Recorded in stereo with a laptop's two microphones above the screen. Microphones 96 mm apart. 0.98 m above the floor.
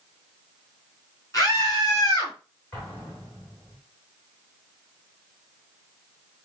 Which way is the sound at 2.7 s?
25° left (ahead or behind).